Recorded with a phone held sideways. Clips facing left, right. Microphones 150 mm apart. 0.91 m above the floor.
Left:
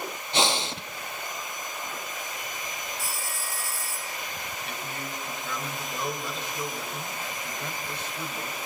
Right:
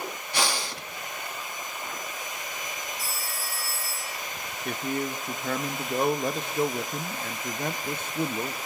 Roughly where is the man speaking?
Right.